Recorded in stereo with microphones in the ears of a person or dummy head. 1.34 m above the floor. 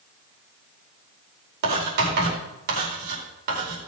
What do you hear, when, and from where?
1.6 s writing: 65° right (ahead or behind), 4.5 m